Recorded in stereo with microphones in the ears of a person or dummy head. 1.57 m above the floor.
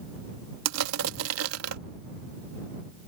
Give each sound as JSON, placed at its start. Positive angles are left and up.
{"t": 0.7, "sound": "crushing", "side_deg": -90}